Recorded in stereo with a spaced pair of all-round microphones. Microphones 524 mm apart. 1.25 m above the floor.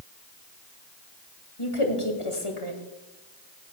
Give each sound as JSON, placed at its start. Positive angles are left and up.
{"t": 1.6, "sound": "a woman speaking", "side_deg": 70, "distance_m": 2.0}